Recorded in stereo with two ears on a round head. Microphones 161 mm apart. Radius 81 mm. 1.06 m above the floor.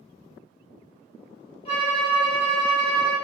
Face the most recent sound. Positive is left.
turn(degrees=35)  # may be behind; listen again after turning